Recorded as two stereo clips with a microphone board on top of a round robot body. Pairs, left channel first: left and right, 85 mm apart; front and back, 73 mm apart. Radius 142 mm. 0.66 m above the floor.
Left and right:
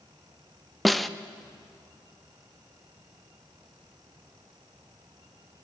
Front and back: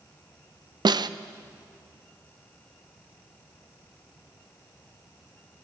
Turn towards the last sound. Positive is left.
turn(degrees=180)